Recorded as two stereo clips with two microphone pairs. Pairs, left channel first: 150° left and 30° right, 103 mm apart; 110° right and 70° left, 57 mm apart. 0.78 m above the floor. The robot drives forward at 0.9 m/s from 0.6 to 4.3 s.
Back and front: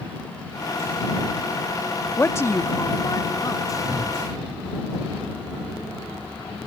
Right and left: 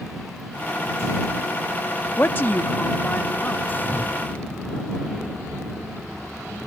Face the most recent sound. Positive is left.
turn(degrees=5)